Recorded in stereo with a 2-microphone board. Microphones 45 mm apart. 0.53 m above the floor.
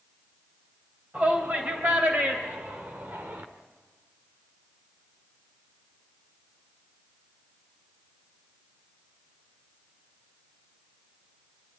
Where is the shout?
45° right (ahead or behind), 3 m; by 3.5 s 55° right (ahead or behind), 1.5 m.